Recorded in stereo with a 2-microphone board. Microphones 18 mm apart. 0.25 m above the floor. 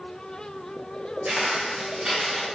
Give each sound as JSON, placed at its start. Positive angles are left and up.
{"t": 1.2, "sound": "footsteps", "side_deg": -60, "distance_m": 1.6}